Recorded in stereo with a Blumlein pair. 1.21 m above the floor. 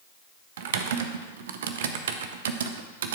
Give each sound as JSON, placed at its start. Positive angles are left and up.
{"t": 0.6, "sound": "typing on a keyboard", "azimuth_deg": -60, "distance_m": 0.7}